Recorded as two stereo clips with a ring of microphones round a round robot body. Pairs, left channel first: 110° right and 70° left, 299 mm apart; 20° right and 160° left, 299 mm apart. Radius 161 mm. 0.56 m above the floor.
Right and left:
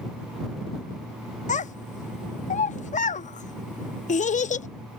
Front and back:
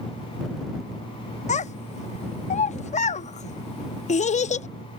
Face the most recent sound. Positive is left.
turn(degrees=-70)